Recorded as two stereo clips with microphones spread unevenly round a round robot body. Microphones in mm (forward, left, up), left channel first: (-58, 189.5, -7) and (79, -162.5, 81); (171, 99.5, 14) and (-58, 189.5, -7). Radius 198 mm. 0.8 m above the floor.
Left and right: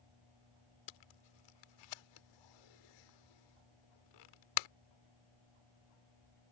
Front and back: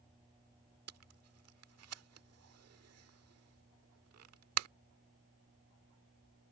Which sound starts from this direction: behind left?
Tape being pulled, at 0.9 s.